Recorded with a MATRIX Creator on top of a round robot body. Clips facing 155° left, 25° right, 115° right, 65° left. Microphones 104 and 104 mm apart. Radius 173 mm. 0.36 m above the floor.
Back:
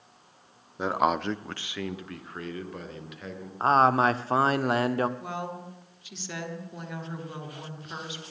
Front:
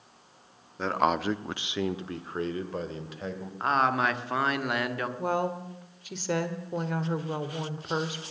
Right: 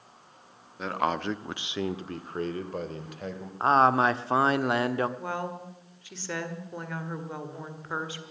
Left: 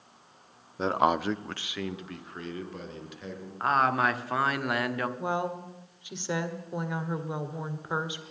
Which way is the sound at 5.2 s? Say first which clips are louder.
Front 7 dB, left 3 dB; straight ahead.